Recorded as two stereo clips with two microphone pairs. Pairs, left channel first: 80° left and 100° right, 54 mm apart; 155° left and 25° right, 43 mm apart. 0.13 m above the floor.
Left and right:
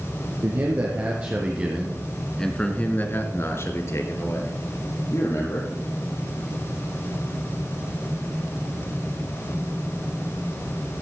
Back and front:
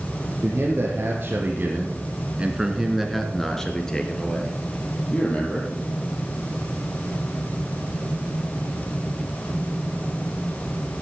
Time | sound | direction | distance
0.4 | a man speaking | 60° right | 3 m